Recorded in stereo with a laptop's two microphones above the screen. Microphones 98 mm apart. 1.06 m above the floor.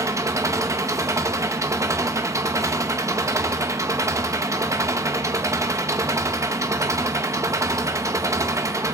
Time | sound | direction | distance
0.0 | an engine running | 30° right (ahead or behind) | 1.2 m